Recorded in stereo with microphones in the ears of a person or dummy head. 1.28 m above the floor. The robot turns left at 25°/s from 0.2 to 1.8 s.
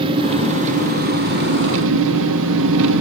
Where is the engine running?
25° right, 0.9 m; by 3.0 s 65° right, 0.9 m.